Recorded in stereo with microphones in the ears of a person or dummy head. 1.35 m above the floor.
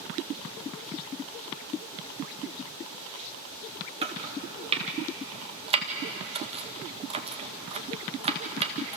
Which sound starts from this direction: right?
Chopping, at 4.0 s.